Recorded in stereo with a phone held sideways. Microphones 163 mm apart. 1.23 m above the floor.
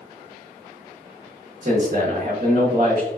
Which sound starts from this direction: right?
A man speaking, at 1.6 s.